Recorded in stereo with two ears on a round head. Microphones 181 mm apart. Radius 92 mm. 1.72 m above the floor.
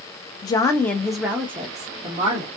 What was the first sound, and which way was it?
A woman speaking, 20° left (ahead or behind).